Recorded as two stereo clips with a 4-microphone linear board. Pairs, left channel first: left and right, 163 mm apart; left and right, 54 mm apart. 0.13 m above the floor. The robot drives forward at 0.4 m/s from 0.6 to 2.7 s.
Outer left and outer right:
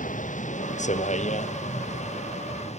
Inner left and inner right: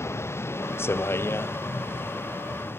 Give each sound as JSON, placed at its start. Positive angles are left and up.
{"t": 0.0, "sound": "a vehicle", "side_deg": 50}